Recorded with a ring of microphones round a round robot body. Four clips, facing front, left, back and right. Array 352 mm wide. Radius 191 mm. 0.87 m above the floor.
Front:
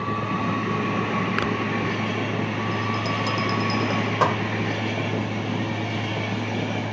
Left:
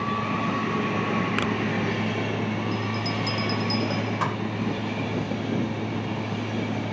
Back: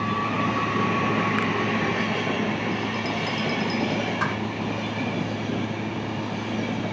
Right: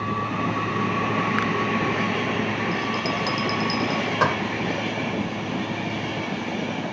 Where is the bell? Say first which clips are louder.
Right 3 dB, front 1 dB; 35° right.